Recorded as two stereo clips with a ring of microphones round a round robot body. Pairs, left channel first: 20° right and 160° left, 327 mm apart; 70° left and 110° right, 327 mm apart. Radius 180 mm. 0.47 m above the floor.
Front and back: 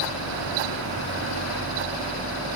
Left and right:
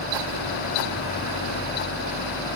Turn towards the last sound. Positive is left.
No sound to turn to.